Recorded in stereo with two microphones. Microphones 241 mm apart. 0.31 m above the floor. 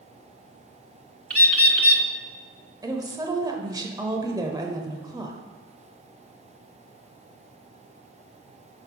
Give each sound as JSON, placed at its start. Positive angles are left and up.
{"t": 1.3, "sound": "a bird", "side_deg": -70, "distance_m": 0.7}
{"t": 2.8, "sound": "a woman speaking", "side_deg": -15, "distance_m": 0.9}